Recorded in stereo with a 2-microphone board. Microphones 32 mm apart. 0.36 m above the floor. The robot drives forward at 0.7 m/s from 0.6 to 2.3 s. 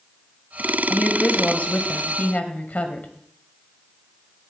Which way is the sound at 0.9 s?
50° left (ahead or behind).